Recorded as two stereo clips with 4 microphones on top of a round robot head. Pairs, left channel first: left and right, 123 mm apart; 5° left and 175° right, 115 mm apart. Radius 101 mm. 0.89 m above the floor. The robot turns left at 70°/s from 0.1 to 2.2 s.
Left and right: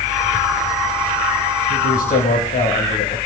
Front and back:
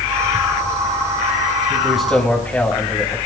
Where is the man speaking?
115° left, 5.5 m; by 3.2 s 80° left, 5.5 m.